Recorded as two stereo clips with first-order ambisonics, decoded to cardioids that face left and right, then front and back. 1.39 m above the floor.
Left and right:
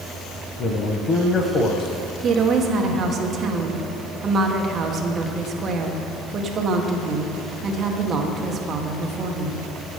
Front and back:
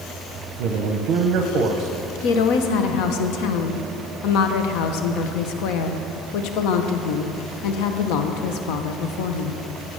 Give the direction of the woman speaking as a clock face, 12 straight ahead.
1 o'clock.